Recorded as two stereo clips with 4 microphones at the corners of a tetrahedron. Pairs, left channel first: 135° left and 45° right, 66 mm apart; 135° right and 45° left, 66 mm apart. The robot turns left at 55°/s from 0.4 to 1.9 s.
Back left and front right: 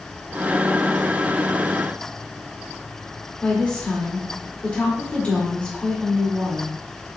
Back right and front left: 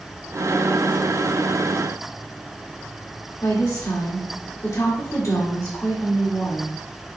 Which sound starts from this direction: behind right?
A woman speaking, at 3.4 s.